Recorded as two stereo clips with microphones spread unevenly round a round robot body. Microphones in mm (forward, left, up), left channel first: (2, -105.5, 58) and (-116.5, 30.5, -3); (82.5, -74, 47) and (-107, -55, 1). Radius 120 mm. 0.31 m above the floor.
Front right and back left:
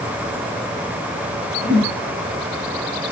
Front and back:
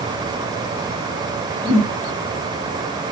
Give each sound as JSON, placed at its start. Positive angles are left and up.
{"t": 1.6, "sound": "a whoosh", "azimuth_deg": -85, "distance_m": 4.5}